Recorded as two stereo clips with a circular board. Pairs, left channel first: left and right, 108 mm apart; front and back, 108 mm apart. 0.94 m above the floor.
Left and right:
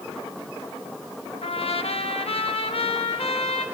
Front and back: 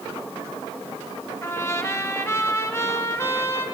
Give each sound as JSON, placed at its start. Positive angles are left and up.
{"t": 1.4, "sound": "a trumpet", "azimuth_deg": 65, "distance_m": 1.0}